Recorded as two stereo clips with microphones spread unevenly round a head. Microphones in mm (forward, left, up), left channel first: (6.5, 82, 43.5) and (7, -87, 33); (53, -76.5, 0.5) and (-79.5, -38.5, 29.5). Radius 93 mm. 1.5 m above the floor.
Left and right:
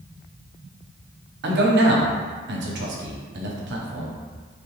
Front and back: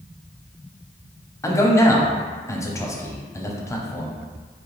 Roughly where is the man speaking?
Right.